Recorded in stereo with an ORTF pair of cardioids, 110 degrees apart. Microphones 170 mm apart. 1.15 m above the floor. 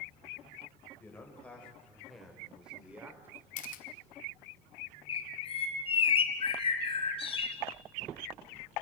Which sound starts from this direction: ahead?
A man speaking, at 1.0 s.